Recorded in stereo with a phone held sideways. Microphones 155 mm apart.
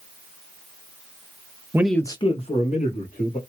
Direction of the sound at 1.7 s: 20° right (ahead or behind).